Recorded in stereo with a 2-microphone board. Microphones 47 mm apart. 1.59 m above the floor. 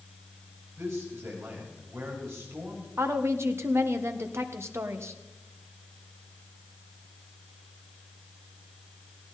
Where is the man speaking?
65° right (ahead or behind), 8 m; by 2.9 s 60° right (ahead or behind), 7 m.